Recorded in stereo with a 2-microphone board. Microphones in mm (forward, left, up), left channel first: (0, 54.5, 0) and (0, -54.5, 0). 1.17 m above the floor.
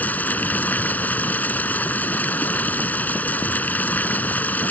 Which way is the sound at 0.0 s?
15° left (ahead or behind).